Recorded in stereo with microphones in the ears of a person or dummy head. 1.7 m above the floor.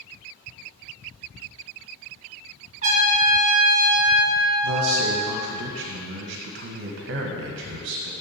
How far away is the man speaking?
About 1.1 m.